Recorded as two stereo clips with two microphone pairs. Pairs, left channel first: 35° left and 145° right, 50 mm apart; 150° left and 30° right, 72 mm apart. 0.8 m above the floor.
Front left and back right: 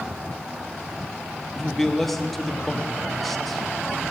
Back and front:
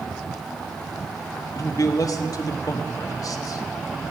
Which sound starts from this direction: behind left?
A man speaking, at 1.6 s.